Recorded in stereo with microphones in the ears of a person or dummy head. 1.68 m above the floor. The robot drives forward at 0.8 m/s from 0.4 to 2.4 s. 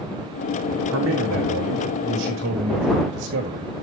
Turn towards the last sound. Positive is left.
turn(degrees=-60)  # may be behind; listen again after turning